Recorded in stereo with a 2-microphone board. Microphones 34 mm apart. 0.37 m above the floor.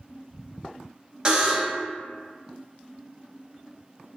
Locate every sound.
1.2 s a buzzer: 20° right (ahead or behind), 0.5 m